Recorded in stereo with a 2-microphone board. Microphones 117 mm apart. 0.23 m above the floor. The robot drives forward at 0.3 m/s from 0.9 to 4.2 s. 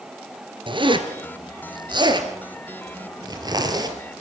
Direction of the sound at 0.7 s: 45° right (ahead or behind).